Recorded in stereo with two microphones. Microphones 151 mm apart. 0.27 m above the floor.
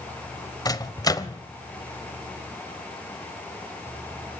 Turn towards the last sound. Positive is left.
turn(degrees=25)  # may be behind; listen again after turning